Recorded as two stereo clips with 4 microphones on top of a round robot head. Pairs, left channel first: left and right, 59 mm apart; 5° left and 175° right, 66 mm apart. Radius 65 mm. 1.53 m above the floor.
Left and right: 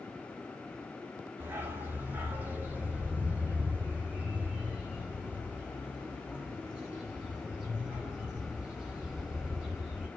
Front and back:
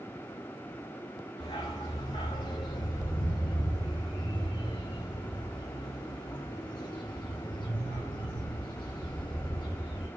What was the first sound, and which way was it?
A dog barking, 35° right.